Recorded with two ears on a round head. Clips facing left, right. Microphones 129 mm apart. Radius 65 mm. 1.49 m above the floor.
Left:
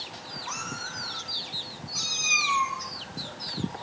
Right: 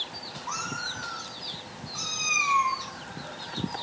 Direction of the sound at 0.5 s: 15° left (ahead or behind).